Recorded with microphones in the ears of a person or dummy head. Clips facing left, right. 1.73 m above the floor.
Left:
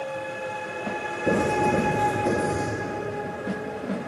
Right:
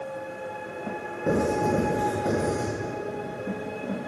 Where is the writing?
5° right (ahead or behind), 3 m.